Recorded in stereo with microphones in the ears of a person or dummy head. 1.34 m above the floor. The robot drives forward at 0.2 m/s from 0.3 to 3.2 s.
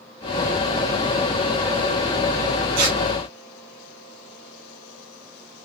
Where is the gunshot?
I don't hear a gunshot.